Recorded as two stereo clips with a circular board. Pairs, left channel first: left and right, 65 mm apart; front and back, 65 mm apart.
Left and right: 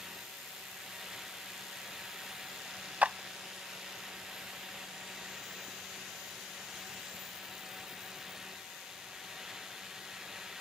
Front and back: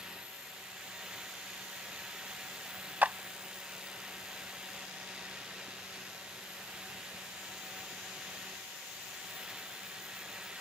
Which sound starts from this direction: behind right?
A clap, at 3.0 s.